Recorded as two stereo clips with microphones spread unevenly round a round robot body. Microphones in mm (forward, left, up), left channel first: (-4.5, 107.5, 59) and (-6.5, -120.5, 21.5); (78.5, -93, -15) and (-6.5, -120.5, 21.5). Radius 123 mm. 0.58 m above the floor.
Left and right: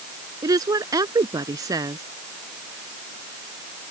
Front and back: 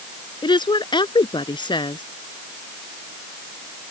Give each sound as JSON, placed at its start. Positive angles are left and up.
{"t": 0.4, "sound": "a woman speaking", "azimuth_deg": -15}